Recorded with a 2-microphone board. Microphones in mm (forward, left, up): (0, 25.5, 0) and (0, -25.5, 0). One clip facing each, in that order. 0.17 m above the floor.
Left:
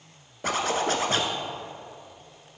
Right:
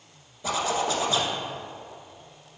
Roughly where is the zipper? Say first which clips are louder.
Left 1 dB; left.